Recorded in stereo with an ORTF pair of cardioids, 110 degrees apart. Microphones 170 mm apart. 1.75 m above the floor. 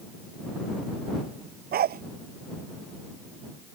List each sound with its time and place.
1.7 s a dog barking: 60° right